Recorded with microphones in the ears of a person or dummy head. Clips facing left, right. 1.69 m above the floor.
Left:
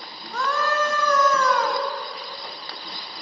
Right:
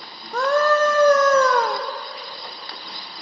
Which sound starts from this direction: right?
A scream, at 0.3 s.